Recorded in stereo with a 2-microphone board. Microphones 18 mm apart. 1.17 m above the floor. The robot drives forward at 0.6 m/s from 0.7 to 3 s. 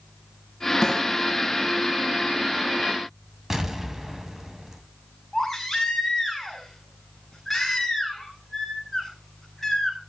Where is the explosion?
25° right (ahead or behind), 2.5 m.